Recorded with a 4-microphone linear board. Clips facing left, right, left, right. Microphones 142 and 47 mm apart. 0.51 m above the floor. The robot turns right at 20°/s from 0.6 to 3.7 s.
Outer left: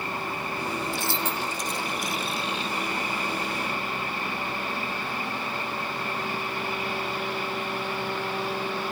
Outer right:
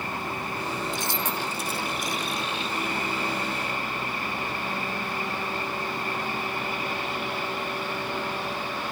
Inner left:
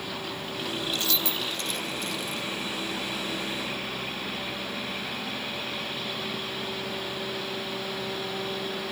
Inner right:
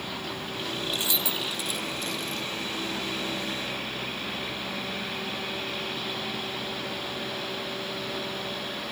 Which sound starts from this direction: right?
Keys jangling, at 0.9 s.